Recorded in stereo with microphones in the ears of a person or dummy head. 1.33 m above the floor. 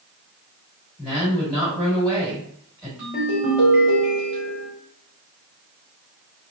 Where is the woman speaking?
5° right (ahead or behind), 1.9 m.